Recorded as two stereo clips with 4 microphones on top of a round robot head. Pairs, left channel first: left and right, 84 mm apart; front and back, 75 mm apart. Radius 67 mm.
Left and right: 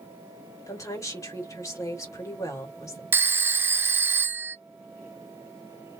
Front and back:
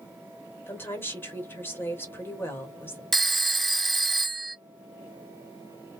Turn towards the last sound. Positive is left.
turn(degrees=-85)